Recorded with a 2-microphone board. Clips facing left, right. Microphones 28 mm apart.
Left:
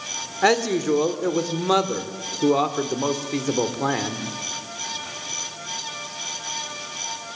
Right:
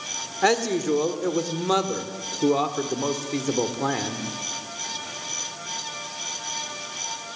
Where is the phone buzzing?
I don't hear a phone buzzing.